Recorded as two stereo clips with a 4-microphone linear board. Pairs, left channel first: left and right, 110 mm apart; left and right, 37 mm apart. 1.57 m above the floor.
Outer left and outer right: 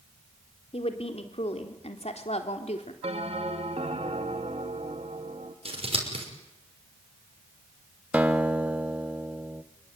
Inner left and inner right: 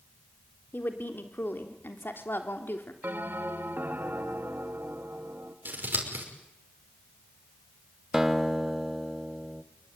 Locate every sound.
0.7 s a woman speaking: 65° left (ahead or behind), 3.5 m; by 2.9 s 80° left, 3 m
3.0 s a bell: 65° right (ahead or behind), 2.0 m
5.7 s scissors: 60° right (ahead or behind), 6 m
8.1 s a guitar: 15° right (ahead or behind), 1.3 m